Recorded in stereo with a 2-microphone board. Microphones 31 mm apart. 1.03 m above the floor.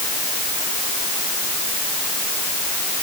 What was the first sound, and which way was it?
Only background noise.